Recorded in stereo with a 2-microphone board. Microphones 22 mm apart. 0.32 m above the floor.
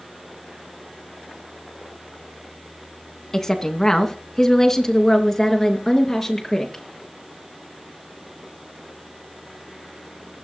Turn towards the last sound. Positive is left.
turn(degrees=10)  # may be behind; listen again after turning